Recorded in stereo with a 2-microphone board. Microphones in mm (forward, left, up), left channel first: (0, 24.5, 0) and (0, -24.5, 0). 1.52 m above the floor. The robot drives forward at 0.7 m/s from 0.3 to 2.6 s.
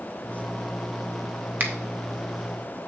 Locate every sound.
1.6 s a finger snap: 40° right (ahead or behind), 1.0 m